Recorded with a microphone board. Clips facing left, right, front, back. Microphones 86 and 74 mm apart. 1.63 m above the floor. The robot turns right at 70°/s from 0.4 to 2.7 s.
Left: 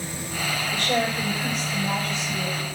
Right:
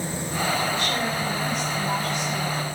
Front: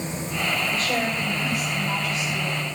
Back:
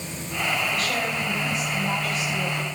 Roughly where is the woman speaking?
Ahead left.